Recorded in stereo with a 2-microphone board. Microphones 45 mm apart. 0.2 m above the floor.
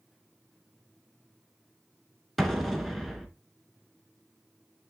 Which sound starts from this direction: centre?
An explosion, at 2.4 s.